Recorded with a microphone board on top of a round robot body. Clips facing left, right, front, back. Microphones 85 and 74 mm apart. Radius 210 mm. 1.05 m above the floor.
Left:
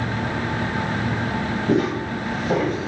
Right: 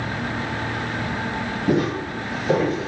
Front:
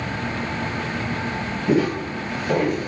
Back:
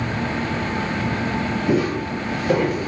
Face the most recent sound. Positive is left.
turn(degrees=-150)